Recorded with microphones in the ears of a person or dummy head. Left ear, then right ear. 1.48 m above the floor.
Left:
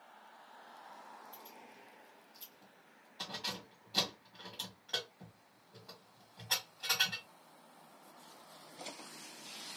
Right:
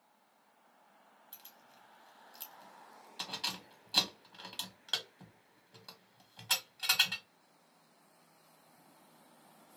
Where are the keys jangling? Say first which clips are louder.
Left 5 dB; 50° right (ahead or behind), 1.5 m.